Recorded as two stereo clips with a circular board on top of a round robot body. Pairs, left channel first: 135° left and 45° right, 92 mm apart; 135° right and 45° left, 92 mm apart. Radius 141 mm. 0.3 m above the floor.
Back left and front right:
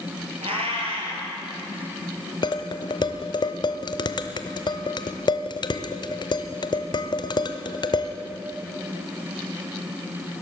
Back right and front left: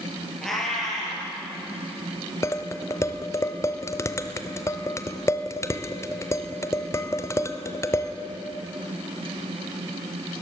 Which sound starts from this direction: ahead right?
A cat meowing, at 0.4 s.